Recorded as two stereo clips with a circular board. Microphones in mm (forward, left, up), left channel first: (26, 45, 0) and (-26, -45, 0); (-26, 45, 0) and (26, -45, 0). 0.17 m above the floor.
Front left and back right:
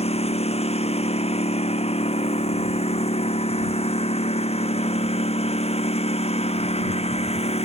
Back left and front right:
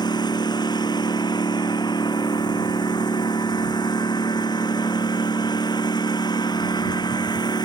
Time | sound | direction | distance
0.0 | a lawn mower | 75° left | ?